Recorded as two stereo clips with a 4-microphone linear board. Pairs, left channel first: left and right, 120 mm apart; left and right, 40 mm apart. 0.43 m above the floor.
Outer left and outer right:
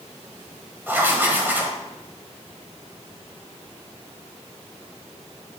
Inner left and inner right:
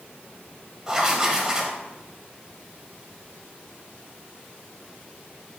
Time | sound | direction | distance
0.9 | writing | 15° right (ahead or behind) | 1.2 m